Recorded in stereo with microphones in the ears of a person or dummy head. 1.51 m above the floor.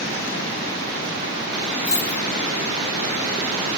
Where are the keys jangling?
70° left (ahead or behind), 1.6 m.